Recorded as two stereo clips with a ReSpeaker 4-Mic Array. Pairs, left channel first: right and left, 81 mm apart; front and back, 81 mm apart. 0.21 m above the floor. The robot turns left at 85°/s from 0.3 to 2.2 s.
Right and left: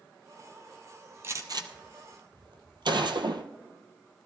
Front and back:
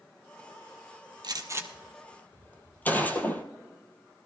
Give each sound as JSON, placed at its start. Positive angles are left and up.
{"t": 1.2, "sound": "a gunshot", "azimuth_deg": 150, "distance_m": 0.9}